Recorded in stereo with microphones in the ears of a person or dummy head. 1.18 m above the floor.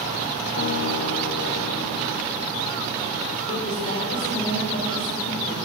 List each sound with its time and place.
0.6 s a guitar: 60° left (ahead or behind), 1.7 m
3.5 s a woman speaking: 50° left (ahead or behind), 6 m